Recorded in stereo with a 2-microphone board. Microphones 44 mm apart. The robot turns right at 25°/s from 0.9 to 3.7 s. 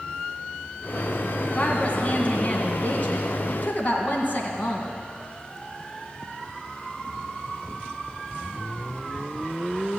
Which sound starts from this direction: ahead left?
A woman speaking, at 1.5 s.